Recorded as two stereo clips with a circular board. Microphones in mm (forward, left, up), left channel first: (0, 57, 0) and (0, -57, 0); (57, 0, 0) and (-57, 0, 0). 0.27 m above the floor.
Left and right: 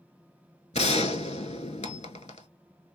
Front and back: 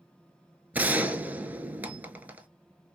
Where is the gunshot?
105° left, 0.6 m.